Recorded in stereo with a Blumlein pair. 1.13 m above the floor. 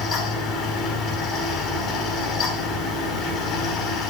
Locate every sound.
0.0 s a fan: 25° left, 6 m